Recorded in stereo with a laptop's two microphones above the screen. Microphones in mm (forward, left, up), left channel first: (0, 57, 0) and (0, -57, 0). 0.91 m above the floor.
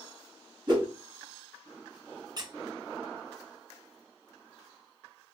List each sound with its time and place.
0.7 s a whoosh: 35° right (ahead or behind), 1.3 m
2.4 s a squeak: 40° right (ahead or behind), 0.5 m